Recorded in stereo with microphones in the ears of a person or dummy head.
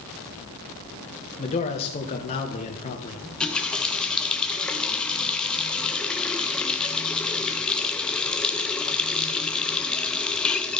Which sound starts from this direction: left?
A man speaking, at 1.4 s.